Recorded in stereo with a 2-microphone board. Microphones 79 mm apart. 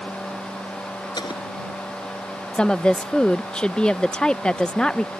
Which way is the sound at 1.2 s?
65° left (ahead or behind).